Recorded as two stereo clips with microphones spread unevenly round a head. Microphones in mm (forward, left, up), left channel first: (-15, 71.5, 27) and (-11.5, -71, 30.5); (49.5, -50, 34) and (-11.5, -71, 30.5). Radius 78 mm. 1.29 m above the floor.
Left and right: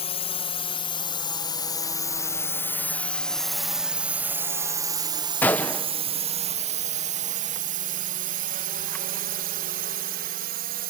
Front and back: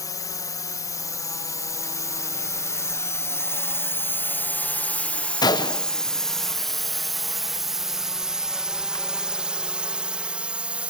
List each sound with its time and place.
0.0 s a drone: 50° left; by 10.9 s 90° right
5.4 s a gunshot: 10° left